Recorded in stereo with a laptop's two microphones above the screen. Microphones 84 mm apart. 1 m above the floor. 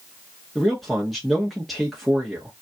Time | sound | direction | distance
0.6 | a man speaking | centre (ahead or behind) | 1.1 m